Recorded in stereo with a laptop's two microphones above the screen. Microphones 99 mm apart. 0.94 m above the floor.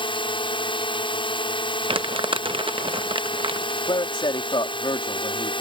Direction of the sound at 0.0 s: 60° left (ahead or behind).